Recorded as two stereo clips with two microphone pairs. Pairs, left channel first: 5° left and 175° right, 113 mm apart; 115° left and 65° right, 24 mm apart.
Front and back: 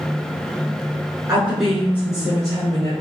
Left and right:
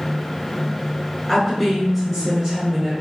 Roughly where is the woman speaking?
Behind.